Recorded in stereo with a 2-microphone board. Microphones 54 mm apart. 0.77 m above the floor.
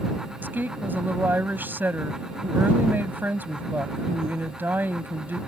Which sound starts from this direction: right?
A woman speaking, at 0.4 s.